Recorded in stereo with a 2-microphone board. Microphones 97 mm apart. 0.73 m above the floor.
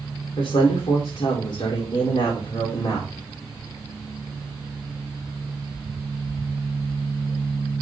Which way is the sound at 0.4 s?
65° left (ahead or behind).